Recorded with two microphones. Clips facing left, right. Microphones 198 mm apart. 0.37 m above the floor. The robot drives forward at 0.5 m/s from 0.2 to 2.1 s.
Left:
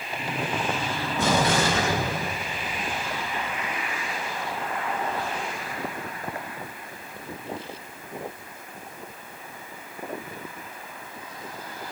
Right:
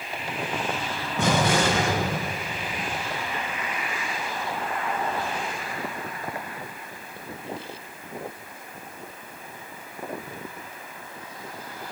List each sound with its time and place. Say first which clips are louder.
1.2 s an explosion: right 1 dB; 70° right (ahead or behind), 3 m